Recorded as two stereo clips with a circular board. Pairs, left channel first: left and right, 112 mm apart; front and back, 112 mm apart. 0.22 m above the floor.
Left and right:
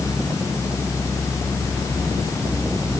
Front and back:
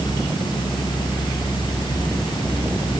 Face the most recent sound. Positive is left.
No sound to turn to.